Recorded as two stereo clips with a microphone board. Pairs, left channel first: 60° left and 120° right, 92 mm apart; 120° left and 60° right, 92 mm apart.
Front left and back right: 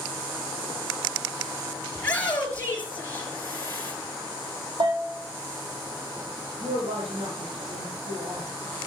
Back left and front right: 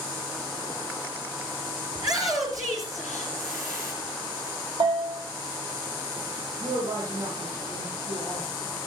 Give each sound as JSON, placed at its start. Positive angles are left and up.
{"t": 1.9, "sound": "a shout", "azimuth_deg": -10, "distance_m": 4.0}
{"t": 4.8, "sound": "a bell", "azimuth_deg": -85, "distance_m": 4.5}
{"t": 6.6, "sound": "a woman speaking", "azimuth_deg": -115, "distance_m": 7.0}